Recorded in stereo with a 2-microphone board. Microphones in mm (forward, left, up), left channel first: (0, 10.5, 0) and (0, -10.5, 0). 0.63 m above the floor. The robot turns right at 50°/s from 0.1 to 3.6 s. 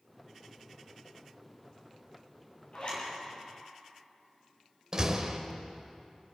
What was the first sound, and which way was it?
A zipper, 65° left (ahead or behind).